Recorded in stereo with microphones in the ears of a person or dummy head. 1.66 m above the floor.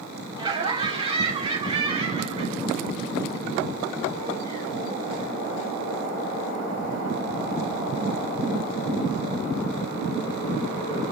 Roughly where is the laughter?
Right.